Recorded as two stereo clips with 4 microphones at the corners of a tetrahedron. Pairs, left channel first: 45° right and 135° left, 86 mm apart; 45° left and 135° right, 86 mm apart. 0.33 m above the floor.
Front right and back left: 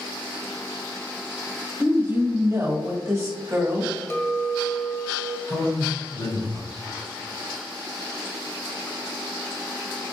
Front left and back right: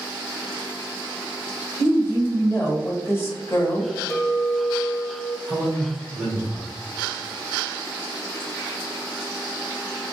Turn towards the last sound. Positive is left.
turn(degrees=-40)